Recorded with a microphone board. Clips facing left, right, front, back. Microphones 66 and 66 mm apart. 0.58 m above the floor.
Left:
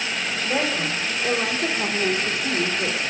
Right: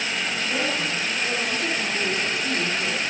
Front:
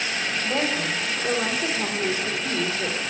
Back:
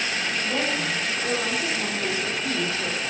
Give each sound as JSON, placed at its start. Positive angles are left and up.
{"t": 0.4, "sound": "a woman speaking", "azimuth_deg": 60, "distance_m": 3.0}